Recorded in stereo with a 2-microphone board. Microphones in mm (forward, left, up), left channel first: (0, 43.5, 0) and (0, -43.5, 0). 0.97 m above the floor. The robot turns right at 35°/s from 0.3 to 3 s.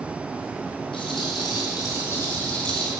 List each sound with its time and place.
0.9 s a rattle: 105° left, 3 m; by 2.9 s 175° left, 3 m